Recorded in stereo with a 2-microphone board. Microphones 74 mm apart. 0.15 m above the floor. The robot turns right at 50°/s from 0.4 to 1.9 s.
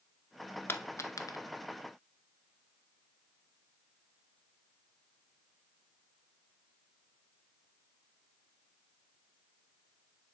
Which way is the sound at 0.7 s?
30° left (ahead or behind).